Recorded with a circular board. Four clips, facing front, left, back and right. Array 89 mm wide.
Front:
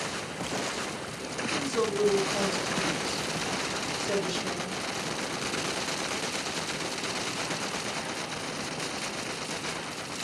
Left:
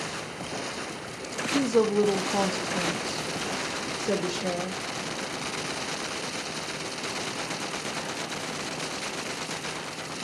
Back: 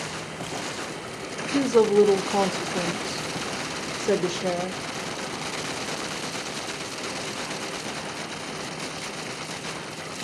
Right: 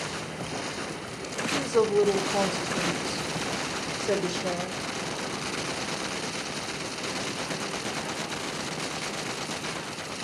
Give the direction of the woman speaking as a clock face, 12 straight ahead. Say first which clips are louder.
Left 1 dB, back 11 dB; 7 o'clock.